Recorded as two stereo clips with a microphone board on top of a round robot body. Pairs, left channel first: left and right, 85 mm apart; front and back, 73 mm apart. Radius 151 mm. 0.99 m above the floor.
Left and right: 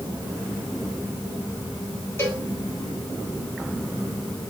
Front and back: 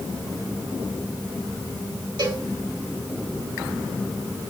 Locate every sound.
2.2 s a cowbell: 155° left, 3 m